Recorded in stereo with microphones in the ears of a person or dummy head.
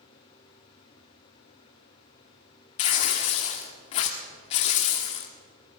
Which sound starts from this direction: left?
Tearing paper, at 2.8 s.